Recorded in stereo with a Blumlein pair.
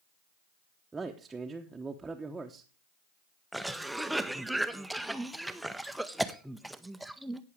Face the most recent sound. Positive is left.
turn(degrees=-5)